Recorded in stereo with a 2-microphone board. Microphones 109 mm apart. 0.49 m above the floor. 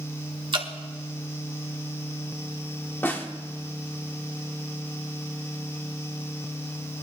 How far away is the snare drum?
About 1.1 m.